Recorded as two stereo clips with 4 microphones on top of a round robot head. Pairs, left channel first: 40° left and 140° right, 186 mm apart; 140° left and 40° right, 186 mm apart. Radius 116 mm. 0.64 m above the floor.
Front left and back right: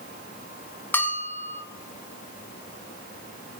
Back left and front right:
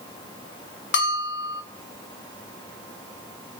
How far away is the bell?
About 1.5 m.